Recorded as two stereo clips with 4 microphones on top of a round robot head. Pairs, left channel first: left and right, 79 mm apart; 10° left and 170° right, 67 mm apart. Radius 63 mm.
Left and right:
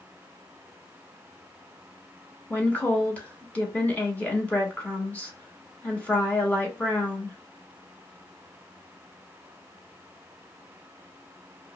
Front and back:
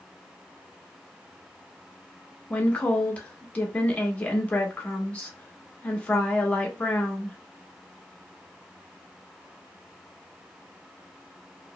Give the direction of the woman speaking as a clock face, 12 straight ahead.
10 o'clock.